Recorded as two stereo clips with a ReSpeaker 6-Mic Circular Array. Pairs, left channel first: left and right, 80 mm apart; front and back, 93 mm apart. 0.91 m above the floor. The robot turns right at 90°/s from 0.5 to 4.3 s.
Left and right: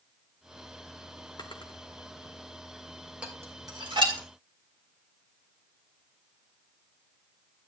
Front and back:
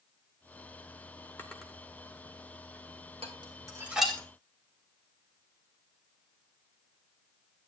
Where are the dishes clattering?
165° right, 1.9 m; by 4.2 s 80° right, 1.9 m.